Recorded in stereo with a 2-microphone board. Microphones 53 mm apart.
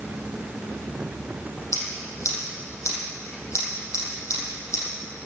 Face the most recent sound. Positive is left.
turn(degrees=60)  # may be behind; listen again after turning